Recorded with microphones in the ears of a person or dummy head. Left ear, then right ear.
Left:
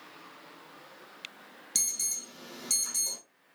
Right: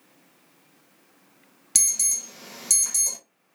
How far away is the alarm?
About 0.9 m.